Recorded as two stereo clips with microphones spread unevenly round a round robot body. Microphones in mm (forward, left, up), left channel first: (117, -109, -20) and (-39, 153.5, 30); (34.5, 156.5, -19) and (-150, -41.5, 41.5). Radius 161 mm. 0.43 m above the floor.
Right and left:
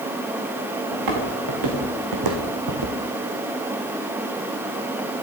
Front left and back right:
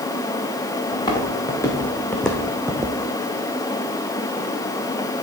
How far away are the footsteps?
About 3.5 m.